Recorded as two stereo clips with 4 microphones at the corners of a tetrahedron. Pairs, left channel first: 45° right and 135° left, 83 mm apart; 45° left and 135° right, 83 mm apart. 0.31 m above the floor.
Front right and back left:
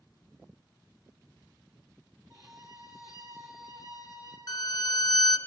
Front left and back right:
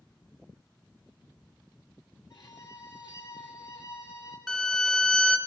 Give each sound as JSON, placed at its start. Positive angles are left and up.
{"t": 2.3, "sound": "a violin", "azimuth_deg": 95, "distance_m": 2.5}
{"t": 4.5, "sound": "a violin", "azimuth_deg": -45, "distance_m": 1.1}